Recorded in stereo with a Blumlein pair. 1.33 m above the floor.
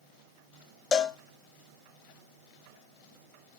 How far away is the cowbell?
About 0.9 m.